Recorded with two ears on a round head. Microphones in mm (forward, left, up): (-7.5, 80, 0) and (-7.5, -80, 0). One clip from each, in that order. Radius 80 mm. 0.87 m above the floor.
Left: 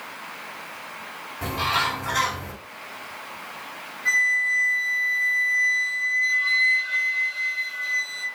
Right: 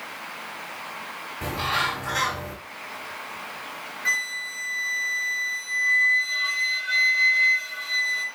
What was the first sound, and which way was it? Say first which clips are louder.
A bird: left 2 dB; 5° left (ahead or behind).